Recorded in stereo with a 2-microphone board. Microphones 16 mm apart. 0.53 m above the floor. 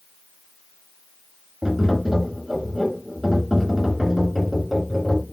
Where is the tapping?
10° right (ahead or behind), 1.9 m.